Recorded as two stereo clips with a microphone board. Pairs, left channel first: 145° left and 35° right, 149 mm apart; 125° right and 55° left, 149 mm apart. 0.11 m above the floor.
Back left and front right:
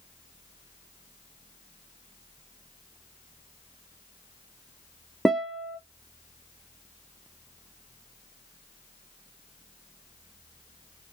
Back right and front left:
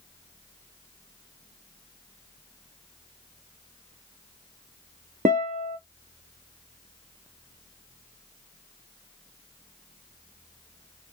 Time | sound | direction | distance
5.2 | a guitar | 55° left | 0.6 m